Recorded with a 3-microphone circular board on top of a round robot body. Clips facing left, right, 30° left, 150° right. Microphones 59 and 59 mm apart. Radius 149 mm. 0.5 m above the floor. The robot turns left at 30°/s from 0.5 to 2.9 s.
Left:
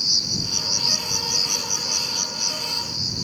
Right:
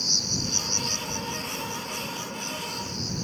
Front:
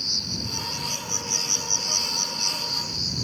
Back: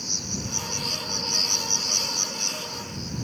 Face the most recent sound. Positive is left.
turn(degrees=55)